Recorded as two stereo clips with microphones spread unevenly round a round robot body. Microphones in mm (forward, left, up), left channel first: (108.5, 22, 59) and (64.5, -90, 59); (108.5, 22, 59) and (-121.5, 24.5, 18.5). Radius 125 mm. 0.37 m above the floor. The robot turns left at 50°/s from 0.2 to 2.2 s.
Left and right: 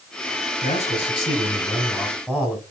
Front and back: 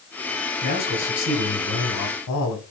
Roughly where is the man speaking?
Ahead left.